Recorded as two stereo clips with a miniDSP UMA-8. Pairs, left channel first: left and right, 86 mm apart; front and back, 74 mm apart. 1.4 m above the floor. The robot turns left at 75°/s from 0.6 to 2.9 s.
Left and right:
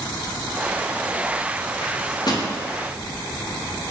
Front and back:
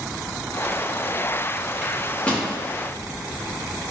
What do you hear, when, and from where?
1.8 s a microwave: 105° left, 0.6 m; by 2.5 s 55° left, 0.6 m